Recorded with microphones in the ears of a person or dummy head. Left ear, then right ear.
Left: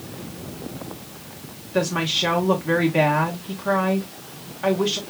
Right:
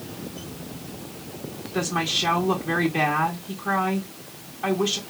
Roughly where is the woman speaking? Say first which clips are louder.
Left 2 dB; centre.